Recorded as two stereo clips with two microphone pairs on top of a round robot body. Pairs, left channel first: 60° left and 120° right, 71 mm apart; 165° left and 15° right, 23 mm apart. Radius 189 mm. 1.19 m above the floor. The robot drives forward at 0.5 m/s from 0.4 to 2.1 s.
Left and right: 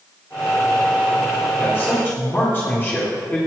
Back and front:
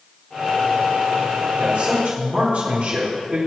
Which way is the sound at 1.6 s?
Straight ahead.